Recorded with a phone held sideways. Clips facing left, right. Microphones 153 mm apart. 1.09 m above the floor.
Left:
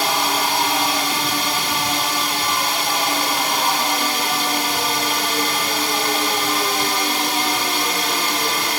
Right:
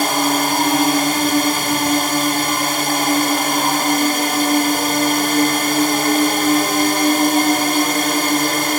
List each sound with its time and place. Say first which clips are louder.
0.0 s a drone: right 4 dB; 50° right (ahead or behind)